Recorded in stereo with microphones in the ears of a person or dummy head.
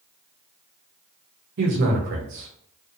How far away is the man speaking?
About 0.9 m.